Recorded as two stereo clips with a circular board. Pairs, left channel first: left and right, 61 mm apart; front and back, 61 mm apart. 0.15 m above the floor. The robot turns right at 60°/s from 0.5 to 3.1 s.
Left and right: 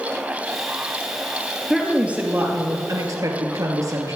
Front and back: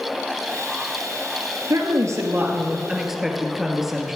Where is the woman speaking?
Straight behind, 2.5 m; by 4.2 s 95° right, 2.5 m.